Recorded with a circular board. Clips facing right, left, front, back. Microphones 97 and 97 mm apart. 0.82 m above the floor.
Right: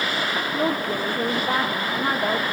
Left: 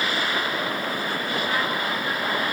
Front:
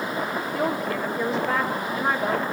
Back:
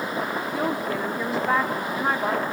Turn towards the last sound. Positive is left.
turn(degrees=-95)